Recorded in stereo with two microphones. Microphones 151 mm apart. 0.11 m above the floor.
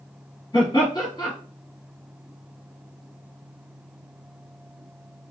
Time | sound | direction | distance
0.5 | laughter | 30° left (ahead or behind) | 1.7 m